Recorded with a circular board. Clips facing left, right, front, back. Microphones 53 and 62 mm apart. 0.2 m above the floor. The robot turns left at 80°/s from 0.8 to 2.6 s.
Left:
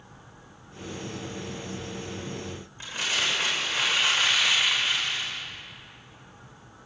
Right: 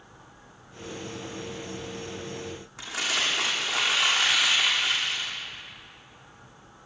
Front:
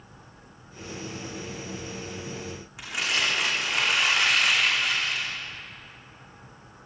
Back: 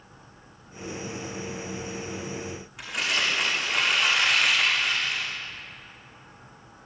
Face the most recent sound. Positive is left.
turn(degrees=-85)